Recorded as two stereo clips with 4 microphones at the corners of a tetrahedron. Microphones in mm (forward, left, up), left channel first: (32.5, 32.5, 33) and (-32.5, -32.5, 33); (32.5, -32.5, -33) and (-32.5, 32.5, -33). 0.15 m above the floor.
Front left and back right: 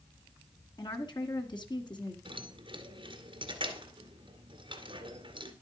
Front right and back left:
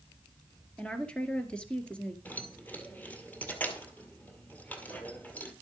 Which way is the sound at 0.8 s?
30° left.